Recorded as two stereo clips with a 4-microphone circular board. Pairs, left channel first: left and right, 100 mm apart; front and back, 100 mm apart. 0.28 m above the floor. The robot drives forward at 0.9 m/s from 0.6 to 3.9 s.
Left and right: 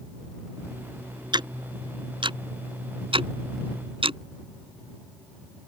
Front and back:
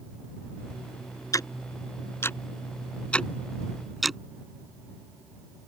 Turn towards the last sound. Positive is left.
turn(degrees=-90)